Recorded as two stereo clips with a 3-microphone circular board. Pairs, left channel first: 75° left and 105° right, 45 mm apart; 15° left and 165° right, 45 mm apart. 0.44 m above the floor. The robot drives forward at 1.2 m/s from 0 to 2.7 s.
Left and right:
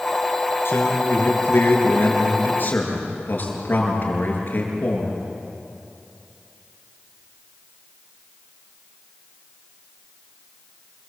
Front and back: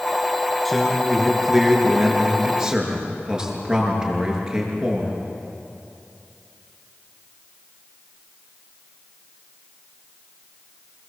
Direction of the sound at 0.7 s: 105° left.